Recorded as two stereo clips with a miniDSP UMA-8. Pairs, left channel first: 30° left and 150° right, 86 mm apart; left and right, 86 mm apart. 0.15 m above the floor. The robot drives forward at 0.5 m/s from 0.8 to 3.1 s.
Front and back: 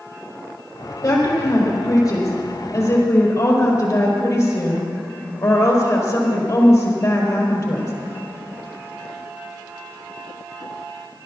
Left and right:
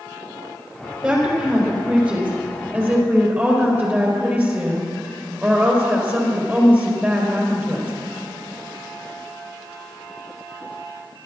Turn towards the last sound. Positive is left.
turn(degrees=-25)